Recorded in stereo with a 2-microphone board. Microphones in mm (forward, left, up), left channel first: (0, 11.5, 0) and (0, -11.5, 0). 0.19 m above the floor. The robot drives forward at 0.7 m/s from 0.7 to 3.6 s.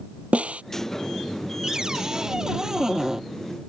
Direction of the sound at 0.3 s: 75° right (ahead or behind).